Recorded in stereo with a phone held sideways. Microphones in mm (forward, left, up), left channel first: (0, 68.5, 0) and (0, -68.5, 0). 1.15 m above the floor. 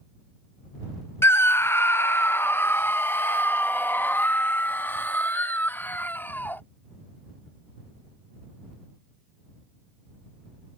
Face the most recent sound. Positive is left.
turn(degrees=15)  # may be behind; listen again after turning